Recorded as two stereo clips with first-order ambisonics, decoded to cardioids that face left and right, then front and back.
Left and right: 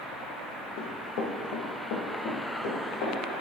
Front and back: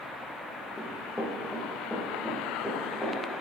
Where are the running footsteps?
80° left, 1.6 m; by 3.4 s 90° left, 3.5 m.